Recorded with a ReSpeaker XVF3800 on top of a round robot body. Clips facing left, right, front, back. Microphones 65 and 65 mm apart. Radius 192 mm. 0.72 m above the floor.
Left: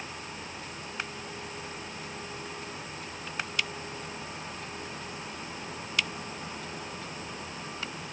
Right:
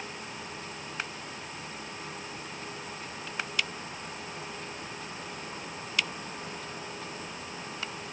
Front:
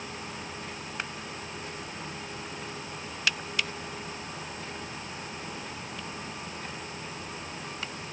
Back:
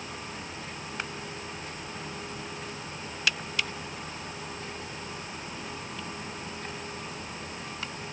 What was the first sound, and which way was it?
Only background noise.